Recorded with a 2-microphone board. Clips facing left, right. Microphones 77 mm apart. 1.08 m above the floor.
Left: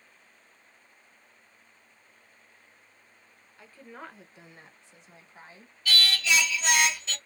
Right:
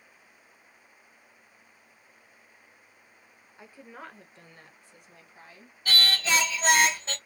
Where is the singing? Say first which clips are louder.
Even; 40° right (ahead or behind), 0.7 m.